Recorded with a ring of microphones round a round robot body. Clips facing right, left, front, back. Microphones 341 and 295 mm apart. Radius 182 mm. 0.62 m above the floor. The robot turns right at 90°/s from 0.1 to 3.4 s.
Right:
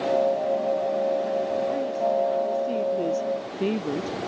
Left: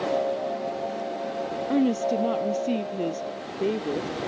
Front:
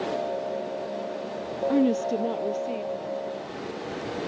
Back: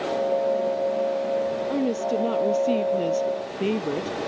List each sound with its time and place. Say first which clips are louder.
1.7 s a woman speaking: left 4 dB, front 5 dB; 50° left; by 4.3 s 155° right